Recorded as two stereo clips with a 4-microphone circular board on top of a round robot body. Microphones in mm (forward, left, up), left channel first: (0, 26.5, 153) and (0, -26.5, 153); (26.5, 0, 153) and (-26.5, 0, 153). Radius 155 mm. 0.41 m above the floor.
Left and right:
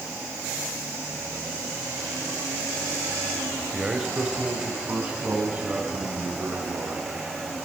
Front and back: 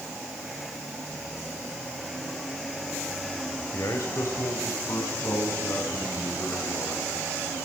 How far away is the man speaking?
About 2.5 m.